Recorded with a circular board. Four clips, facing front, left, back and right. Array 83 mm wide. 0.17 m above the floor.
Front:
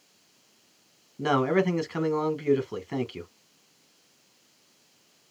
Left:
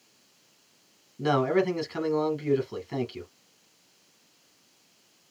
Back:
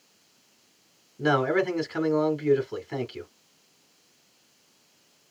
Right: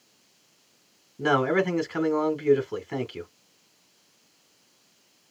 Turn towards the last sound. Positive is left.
turn(degrees=-65)